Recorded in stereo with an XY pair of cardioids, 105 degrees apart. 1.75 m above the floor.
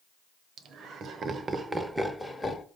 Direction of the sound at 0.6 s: 65° right.